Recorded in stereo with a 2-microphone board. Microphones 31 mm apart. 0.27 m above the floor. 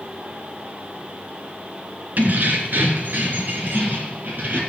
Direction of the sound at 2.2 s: 70° right (ahead or behind).